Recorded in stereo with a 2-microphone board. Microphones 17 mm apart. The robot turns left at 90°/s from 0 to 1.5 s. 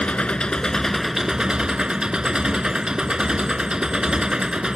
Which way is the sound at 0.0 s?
95° left.